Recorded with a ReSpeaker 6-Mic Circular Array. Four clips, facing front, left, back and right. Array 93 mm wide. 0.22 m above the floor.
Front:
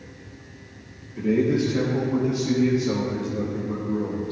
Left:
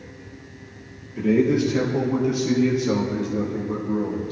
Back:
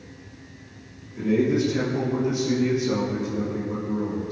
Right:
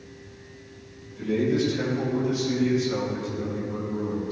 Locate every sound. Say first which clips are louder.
1.2 s a man speaking: left 5 dB, even; 75° left, 4.5 m